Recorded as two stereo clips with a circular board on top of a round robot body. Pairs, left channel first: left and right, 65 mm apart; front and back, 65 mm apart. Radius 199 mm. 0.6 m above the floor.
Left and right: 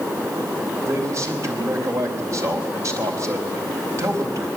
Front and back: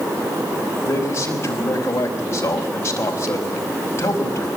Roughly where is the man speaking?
Ahead right.